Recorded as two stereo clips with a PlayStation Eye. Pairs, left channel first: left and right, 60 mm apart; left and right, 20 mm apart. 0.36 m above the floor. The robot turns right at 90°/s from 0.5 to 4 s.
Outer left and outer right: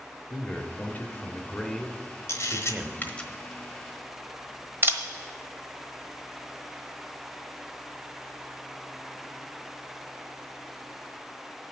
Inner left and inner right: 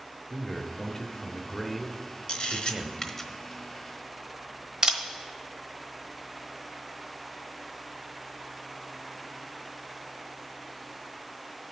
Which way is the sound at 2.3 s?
50° left (ahead or behind).